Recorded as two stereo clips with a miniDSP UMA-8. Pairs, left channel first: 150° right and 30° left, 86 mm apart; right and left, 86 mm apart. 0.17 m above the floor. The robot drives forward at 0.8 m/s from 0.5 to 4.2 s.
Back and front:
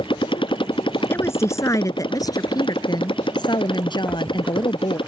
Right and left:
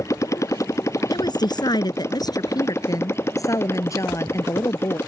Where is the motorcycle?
145° right; by 5.1 s 150° right.